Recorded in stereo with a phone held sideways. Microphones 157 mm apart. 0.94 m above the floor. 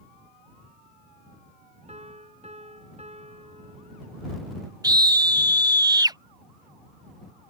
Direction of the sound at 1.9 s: 45° right (ahead or behind).